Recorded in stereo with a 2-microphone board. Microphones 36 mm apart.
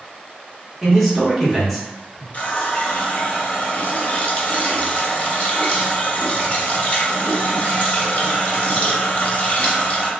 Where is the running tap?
40° left (ahead or behind), 0.6 m.